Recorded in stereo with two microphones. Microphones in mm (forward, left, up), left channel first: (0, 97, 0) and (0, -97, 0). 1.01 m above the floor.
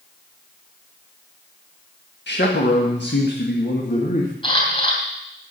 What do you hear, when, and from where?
2.3 s a man speaking: 65° left (ahead or behind), 1.6 m; by 4.3 s 50° left (ahead or behind), 1.8 m
4.4 s a camera shutter: 25° left (ahead or behind), 3 m